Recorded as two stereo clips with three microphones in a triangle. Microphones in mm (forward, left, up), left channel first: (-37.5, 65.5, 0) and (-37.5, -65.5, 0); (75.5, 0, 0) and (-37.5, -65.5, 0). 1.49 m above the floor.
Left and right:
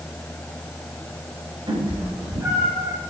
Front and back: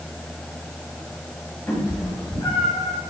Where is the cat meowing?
35° right, 4.5 m; by 3.0 s 10° right, 4.5 m.